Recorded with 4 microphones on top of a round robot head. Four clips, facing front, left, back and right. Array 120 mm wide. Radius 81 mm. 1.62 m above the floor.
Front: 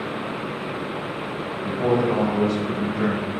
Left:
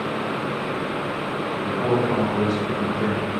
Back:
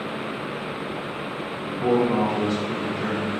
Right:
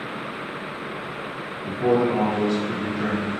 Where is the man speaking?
5° left, 2.5 m.